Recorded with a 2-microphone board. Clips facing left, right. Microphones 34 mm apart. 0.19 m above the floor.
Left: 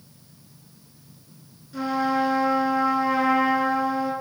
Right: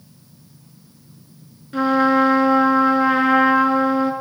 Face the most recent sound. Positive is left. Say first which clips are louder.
# right 8 dB
turn(degrees=-50)  # may be behind; listen again after turning